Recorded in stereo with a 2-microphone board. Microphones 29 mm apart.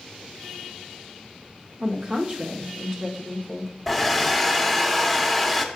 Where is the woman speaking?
30° right (ahead or behind), 0.9 m.